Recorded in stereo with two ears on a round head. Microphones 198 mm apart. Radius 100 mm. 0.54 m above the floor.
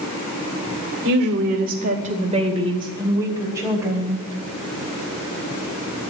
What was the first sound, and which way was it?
A woman speaking, 50° right (ahead or behind).